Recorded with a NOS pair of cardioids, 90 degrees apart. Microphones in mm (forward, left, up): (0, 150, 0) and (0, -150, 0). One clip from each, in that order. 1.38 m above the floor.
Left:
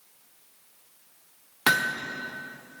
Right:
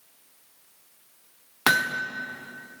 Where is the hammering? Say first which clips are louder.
Right 1 dB; 10° right, 0.9 m.